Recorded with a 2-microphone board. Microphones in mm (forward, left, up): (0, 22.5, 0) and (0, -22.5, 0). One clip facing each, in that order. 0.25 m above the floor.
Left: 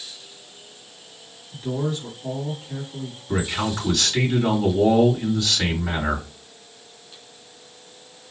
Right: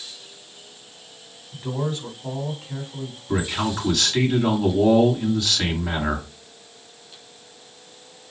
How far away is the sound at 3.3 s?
About 2 m.